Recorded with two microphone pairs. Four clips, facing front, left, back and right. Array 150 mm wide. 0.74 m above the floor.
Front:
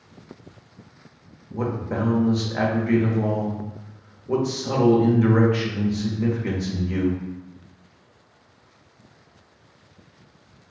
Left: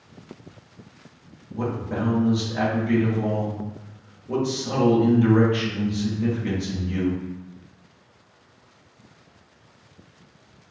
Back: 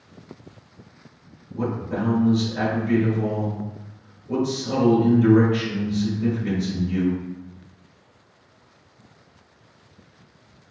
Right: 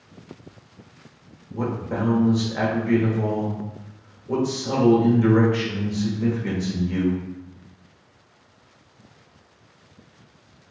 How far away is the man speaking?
About 1.0 m.